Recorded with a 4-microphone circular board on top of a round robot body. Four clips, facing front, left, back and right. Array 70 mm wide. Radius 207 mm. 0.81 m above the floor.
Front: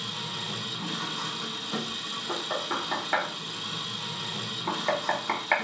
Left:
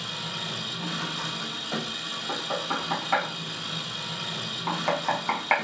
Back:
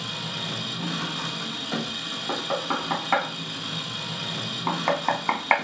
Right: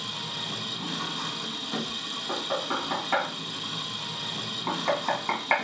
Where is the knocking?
175° left, 1.9 m.